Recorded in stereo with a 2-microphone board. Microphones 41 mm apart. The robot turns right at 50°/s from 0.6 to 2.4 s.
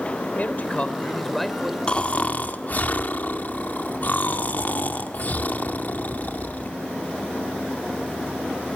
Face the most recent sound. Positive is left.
turn(degrees=45)  # may be behind; listen again after turning